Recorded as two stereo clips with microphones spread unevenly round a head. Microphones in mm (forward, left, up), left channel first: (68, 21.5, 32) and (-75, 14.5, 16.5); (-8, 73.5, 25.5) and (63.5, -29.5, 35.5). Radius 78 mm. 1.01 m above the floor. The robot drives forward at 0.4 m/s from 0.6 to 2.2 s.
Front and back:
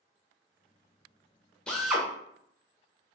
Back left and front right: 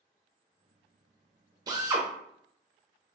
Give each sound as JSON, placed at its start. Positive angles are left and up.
{"t": 1.7, "sound": "a drill", "azimuth_deg": -85, "distance_m": 0.6}